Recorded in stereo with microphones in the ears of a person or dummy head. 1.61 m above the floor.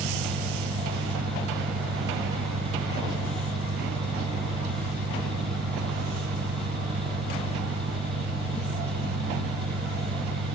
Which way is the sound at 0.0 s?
55° right (ahead or behind).